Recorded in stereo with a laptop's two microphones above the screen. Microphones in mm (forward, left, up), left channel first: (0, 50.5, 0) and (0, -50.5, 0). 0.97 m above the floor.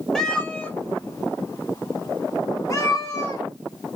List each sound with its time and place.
0.1 s a cat meowing: 5° left (ahead or behind), 0.8 m; by 3.4 s 35° left (ahead or behind), 1.7 m